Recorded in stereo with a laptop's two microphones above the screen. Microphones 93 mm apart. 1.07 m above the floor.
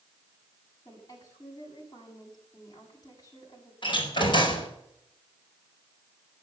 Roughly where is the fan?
No fan in this recording.